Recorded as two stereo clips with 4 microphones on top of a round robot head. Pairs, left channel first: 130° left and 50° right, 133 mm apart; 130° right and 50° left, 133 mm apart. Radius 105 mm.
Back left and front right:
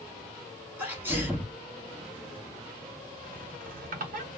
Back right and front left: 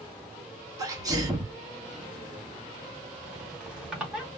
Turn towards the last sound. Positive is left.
turn(degrees=-35)